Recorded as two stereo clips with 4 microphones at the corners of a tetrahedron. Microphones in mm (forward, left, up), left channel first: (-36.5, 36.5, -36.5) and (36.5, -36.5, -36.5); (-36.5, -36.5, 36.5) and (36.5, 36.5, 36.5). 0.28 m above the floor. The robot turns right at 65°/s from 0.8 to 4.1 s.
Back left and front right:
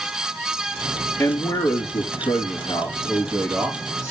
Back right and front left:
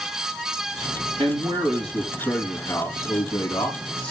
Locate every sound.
1.2 s a man speaking: 60° left, 3.5 m; by 4.1 s 110° right, 3.5 m